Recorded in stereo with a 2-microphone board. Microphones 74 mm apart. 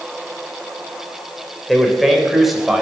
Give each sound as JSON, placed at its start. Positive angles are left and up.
{"t": 1.7, "sound": "a man speaking", "side_deg": 0, "distance_m": 4.0}